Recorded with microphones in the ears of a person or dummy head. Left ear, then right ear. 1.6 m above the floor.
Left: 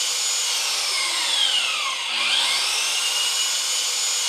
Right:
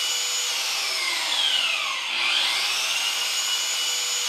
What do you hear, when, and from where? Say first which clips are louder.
0.0 s an engine running: left 1 dB; 45° left (ahead or behind), 0.9 m